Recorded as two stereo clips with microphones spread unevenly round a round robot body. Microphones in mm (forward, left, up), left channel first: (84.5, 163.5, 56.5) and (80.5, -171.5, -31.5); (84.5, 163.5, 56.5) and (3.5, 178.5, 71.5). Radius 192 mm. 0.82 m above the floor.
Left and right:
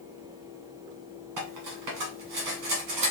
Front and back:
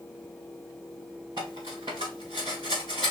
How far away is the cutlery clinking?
About 2.5 m.